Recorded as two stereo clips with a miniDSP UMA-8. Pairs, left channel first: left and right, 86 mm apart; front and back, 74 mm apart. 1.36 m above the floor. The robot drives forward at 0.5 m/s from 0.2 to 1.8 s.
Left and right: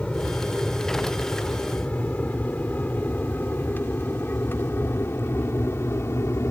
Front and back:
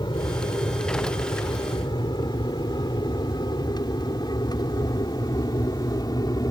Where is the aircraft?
10° left; by 6.5 s 30° left.